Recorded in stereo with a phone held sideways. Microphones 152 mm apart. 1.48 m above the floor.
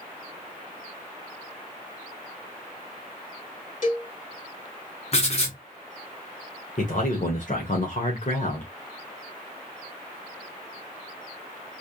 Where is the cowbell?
60° left (ahead or behind), 2.5 m.